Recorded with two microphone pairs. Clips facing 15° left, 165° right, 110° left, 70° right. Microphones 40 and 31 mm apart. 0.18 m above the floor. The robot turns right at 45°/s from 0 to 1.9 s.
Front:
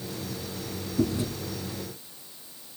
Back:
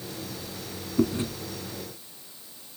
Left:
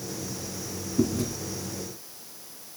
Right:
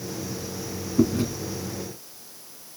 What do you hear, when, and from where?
1.0 s chewing: 125° right, 0.8 m; by 1.3 s 110° right, 0.8 m